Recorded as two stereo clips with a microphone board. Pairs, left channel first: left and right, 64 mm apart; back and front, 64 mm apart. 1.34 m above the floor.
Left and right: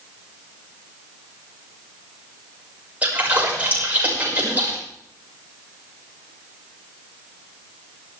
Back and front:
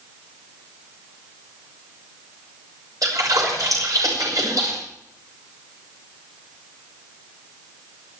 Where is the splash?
25° right, 6 m.